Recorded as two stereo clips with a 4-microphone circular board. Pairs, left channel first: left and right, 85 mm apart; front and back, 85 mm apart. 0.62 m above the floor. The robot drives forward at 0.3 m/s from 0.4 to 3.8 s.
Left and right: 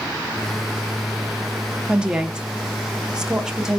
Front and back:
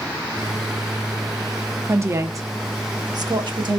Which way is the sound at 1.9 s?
160° right.